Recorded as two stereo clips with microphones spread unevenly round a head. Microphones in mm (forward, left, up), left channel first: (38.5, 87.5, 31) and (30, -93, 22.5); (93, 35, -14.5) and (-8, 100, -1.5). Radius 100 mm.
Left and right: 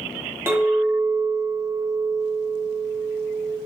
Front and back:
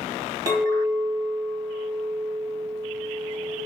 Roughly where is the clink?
Behind.